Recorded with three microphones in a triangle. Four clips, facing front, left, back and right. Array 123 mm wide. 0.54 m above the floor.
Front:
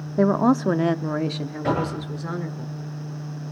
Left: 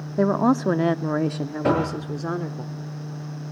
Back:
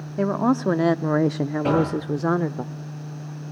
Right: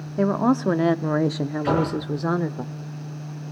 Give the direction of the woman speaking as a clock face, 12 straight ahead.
11 o'clock.